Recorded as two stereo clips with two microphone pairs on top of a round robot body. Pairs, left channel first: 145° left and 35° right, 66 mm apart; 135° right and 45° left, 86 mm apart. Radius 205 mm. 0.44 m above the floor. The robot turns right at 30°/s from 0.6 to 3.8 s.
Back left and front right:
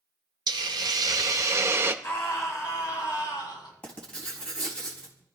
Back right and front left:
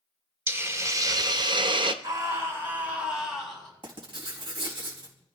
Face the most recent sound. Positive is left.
turn(degrees=75)